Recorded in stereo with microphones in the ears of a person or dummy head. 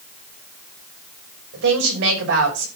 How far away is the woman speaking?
About 6 m.